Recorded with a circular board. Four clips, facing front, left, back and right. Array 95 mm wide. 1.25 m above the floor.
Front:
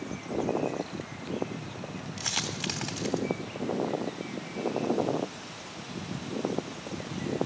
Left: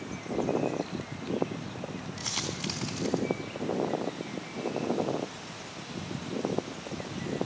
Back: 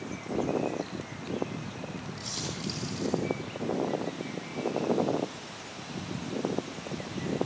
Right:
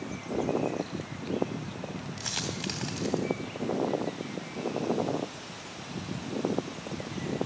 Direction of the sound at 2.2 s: 25° right.